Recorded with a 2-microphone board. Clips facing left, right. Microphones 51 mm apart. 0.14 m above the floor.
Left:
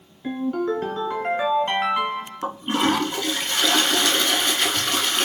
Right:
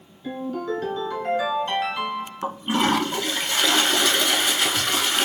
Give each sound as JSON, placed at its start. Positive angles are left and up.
{"t": 0.2, "sound": "a ringtone", "side_deg": 40, "distance_m": 1.1}
{"t": 2.4, "sound": "a toilet flushing", "side_deg": -10, "distance_m": 0.8}